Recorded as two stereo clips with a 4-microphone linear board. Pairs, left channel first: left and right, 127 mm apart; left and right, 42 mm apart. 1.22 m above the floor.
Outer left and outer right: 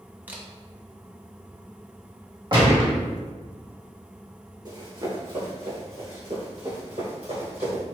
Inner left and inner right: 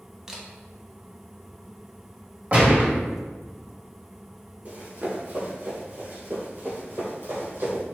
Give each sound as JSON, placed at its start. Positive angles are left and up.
{"t": 0.3, "sound": "a camera shutter", "side_deg": -15, "distance_m": 0.6}
{"t": 2.5, "sound": "a gunshot", "side_deg": -40, "distance_m": 1.2}
{"t": 4.7, "sound": "running footsteps", "side_deg": -35, "distance_m": 1.4}